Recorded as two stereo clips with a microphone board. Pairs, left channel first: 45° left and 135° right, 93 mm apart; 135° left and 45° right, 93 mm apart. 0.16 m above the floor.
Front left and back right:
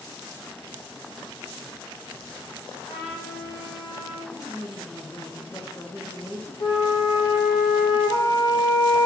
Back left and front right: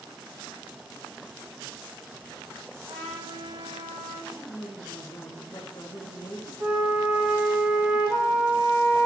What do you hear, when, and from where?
2.9 s a trumpet: straight ahead, 5.5 m
4.3 s a woman speaking: 100° left, 2.5 m
6.6 s a flute: 20° left, 3.5 m